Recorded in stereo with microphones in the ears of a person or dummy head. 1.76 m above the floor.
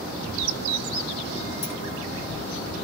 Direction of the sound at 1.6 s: 35° left (ahead or behind).